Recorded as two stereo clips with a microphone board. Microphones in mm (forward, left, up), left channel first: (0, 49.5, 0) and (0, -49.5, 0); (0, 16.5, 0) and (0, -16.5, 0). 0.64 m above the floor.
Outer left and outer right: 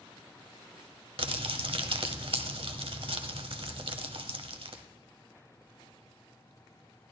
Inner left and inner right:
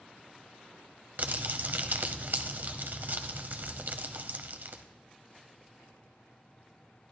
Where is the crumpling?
65° right (ahead or behind), 0.9 m.